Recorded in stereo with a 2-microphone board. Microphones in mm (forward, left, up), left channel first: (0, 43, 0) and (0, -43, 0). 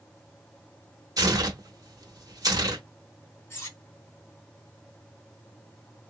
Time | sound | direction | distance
1.2 | tearing paper | 45° right (ahead or behind) | 1.4 m
3.5 | cutlery clinking | 30° left (ahead or behind) | 1.7 m